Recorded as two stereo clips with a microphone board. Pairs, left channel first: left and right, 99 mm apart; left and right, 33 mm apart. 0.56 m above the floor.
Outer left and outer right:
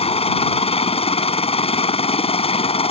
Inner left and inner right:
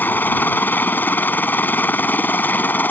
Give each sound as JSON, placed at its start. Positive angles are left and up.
{"t": 0.0, "sound": "a helicopter", "side_deg": 75}